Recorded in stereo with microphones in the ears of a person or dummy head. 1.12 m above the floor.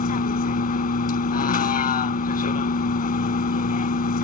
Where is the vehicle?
40° left (ahead or behind).